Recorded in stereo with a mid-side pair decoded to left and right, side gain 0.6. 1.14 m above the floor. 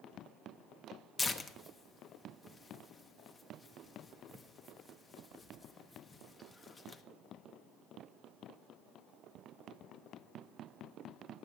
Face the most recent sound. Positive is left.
turn(degrees=25)